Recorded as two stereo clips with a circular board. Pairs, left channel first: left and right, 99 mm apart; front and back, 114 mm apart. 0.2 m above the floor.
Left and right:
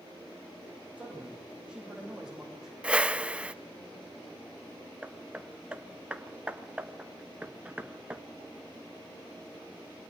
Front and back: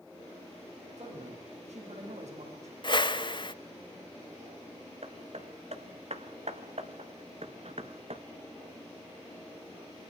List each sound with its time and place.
1.0 s a man speaking: 170° right, 10 m; by 2.7 s straight behind, 8 m
2.8 s a whoosh: 15° right, 0.8 m
5.0 s hammering: 170° right, 1.2 m